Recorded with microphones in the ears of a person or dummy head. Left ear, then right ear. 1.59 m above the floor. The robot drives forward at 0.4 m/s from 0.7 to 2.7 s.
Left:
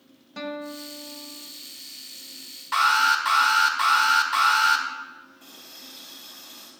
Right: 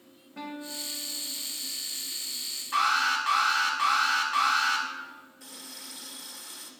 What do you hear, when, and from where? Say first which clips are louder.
0.4 s a guitar: left 4 dB; 75° left (ahead or behind), 1.2 m; by 1.5 s 65° left (ahead or behind), 1.3 m
2.7 s an alarm: left 5 dB; 40° left (ahead or behind), 1.3 m
5.4 s a running tap: right 4 dB; 40° right (ahead or behind), 1.3 m